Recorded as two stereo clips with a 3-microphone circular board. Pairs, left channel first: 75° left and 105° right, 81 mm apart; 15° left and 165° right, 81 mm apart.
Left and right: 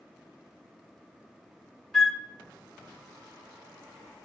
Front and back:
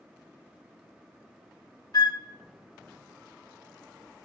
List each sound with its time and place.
1.9 s a flute: 10° right, 0.9 m